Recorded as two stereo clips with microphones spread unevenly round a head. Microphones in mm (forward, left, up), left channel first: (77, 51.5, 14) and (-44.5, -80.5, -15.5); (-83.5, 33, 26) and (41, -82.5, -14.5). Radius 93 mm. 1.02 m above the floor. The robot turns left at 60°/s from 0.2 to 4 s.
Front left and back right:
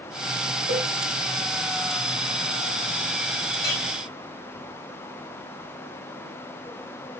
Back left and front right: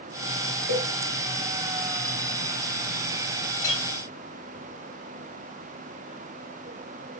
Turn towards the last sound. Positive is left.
turn(degrees=65)